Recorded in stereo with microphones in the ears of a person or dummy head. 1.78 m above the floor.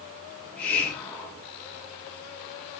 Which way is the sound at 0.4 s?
10° left (ahead or behind).